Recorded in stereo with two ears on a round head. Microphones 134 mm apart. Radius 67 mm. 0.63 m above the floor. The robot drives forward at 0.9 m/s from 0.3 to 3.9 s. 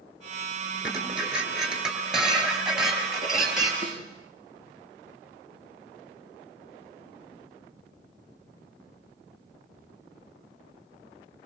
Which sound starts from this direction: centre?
Dishes clattering, at 0.8 s.